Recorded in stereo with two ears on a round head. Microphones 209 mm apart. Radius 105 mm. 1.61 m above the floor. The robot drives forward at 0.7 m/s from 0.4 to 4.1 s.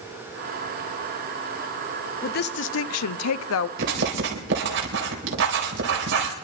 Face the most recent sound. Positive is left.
turn(degrees=-55)  # may be behind; listen again after turning